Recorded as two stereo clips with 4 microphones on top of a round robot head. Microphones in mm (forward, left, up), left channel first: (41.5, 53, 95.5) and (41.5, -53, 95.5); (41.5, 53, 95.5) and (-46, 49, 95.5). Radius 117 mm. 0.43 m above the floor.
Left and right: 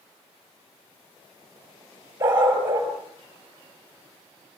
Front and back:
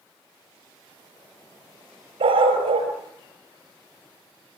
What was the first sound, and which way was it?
A dog barking, 160° right.